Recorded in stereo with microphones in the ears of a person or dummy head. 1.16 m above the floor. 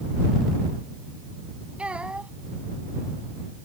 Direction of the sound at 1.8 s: Centre (ahead or behind).